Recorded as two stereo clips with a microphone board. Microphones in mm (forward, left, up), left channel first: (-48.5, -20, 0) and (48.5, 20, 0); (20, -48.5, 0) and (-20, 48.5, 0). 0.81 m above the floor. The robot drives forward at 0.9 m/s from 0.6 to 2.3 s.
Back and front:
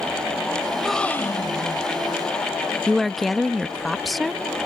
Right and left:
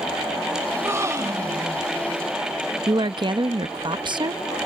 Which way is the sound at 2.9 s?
115° left.